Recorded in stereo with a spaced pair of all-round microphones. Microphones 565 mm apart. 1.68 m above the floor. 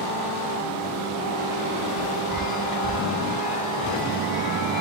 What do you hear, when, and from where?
2.3 s a chime: 60° left (ahead or behind), 2.5 m